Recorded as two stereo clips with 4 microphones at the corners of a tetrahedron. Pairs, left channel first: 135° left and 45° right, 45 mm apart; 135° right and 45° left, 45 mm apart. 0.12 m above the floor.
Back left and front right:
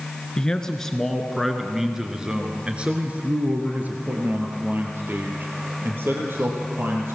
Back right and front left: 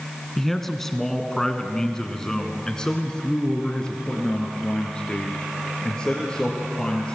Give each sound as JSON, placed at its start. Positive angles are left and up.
{"t": 0.4, "sound": "a man speaking", "azimuth_deg": 150, "distance_m": 1.6}